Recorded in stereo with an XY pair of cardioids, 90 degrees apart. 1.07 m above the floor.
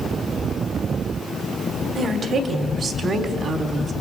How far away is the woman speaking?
About 3.5 m.